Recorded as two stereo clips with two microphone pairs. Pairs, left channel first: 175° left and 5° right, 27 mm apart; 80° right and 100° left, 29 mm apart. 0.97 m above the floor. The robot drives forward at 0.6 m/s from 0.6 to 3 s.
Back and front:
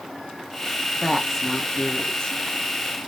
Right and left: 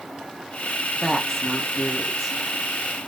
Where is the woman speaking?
25° left, 0.7 m; by 2.4 s 165° left, 0.8 m.